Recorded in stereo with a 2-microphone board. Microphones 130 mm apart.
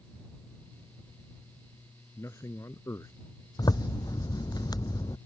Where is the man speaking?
25° left (ahead or behind).